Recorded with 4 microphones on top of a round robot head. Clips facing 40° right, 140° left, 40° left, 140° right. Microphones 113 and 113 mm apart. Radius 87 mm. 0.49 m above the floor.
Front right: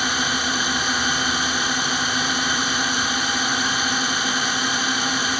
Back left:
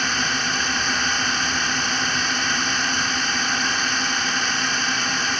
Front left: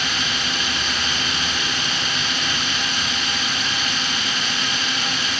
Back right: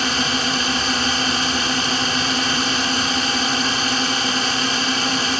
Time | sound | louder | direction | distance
0.0 | a drone | front right 1 dB, back right 5 dB | 115° right | ?